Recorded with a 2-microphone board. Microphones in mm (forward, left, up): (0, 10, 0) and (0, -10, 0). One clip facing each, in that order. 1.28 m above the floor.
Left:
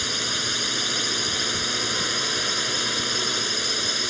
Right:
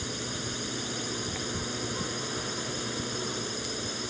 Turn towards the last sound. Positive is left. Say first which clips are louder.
# left 10 dB
turn(degrees=50)  # may be behind; listen again after turning